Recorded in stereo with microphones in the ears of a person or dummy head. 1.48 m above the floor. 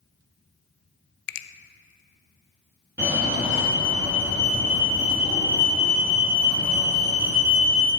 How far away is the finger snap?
About 0.7 m.